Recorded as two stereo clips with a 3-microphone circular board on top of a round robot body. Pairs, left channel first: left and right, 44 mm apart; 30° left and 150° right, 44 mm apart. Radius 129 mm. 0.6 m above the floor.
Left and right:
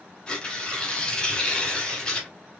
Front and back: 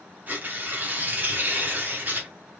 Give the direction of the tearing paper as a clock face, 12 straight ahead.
7 o'clock.